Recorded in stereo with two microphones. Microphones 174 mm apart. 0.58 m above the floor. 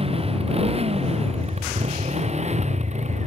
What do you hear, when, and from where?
0.0 s a motorcycle: 35° right (ahead or behind); by 3.3 s 40° right (ahead or behind)